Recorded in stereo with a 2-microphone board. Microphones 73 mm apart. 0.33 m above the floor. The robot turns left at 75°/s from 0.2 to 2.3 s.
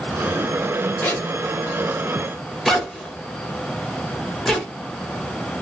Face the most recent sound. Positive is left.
turn(degrees=5)  # may be behind; listen again after turning